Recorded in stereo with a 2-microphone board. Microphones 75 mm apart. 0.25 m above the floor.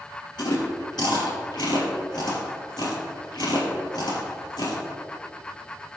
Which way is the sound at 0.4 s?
75° left (ahead or behind).